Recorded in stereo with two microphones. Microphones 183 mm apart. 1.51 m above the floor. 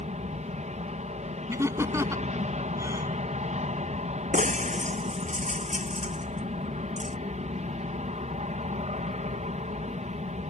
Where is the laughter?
15° right (ahead or behind).